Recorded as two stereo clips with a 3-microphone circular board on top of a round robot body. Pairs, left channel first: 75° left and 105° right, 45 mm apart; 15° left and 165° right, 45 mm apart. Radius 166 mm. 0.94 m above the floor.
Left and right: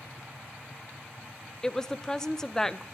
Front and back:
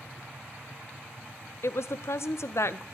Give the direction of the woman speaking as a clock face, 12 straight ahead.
12 o'clock.